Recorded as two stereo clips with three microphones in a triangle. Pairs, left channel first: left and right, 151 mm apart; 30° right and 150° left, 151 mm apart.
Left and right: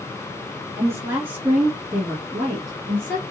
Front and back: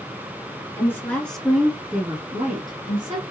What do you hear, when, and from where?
0.8 s a woman speaking: 60° right, 1.3 m; by 3.2 s 165° left, 1.5 m